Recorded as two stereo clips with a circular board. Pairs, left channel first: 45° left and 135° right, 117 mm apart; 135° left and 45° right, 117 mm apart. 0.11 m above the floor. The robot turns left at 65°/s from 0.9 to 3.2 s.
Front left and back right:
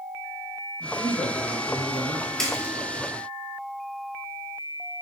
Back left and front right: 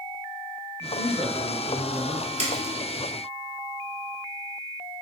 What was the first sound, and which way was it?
A man speaking, 10° left.